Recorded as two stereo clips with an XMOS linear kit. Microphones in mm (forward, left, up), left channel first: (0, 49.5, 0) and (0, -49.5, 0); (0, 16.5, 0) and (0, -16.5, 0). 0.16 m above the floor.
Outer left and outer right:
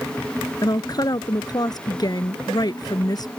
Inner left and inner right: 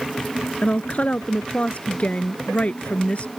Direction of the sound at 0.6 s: 40° left (ahead or behind).